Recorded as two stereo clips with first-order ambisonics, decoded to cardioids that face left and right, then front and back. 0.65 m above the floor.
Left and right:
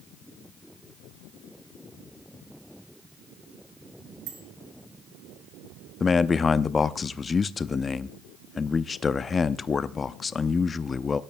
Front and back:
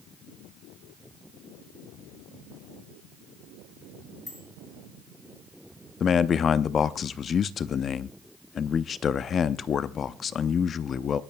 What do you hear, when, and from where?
4.3 s a bicycle bell: 85° right, 7 m
6.0 s a man speaking: 35° left, 0.6 m